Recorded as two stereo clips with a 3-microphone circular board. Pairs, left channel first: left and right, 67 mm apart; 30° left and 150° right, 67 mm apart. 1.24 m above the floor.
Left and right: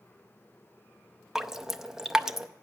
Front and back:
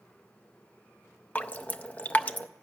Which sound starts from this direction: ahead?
Dripping, at 1.4 s.